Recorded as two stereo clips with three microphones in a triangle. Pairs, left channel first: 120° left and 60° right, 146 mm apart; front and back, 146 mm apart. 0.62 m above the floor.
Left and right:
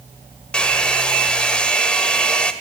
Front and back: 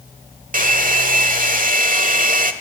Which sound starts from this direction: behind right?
A hair dryer, at 0.5 s.